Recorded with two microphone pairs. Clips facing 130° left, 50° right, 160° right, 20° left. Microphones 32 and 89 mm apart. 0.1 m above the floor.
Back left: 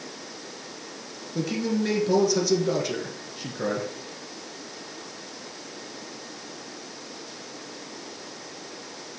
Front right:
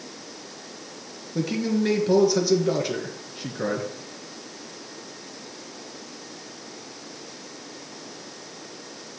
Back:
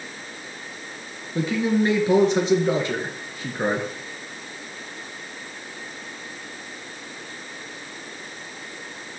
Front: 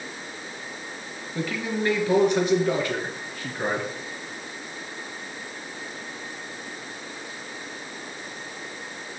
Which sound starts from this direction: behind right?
A man speaking, at 1.4 s.